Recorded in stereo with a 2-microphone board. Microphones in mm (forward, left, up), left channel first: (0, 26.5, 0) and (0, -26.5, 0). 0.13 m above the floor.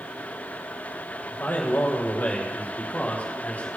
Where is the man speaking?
40° left (ahead or behind), 4.5 m; by 3.7 s 30° left (ahead or behind), 5.5 m.